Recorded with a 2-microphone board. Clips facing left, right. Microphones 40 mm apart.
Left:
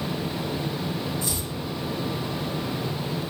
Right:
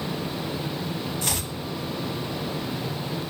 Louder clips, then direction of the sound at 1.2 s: Right 1 dB; 65° right (ahead or behind).